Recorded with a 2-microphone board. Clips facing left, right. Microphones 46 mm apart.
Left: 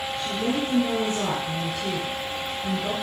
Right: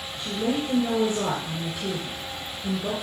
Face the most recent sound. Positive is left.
turn(degrees=-15)  # may be behind; listen again after turning